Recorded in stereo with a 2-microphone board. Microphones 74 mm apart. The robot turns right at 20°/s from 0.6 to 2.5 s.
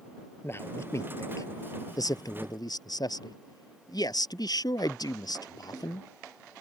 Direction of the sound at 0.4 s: 35° left.